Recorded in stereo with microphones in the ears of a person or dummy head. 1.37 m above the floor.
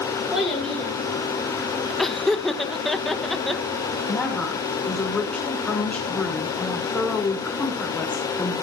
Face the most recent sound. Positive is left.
turn(degrees=5)  # may be behind; listen again after turning